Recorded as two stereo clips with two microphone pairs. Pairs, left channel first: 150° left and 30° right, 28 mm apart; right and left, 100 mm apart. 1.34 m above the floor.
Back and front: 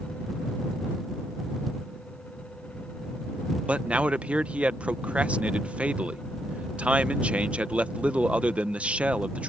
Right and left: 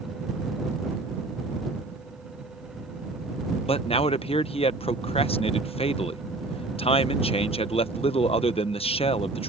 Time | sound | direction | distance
3.7 | a man speaking | 70° right | ?